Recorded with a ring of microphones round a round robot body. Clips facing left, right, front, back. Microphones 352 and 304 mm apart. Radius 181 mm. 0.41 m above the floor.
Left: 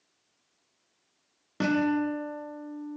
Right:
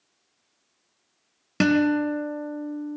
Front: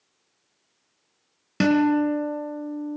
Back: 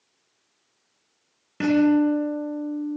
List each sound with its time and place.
1.6 s a guitar: 45° right, 3 m